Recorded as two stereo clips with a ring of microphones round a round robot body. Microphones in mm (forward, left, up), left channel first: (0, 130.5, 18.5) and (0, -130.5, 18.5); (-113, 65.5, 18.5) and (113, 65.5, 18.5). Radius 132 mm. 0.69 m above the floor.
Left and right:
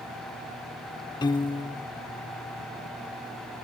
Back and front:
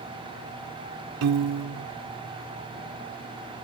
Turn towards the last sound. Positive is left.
turn(degrees=15)